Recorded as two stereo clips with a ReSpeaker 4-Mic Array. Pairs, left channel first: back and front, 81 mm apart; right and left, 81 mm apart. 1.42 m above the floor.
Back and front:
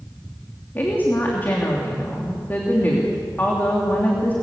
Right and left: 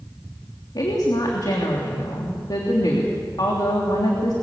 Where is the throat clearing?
I don't hear throat clearing.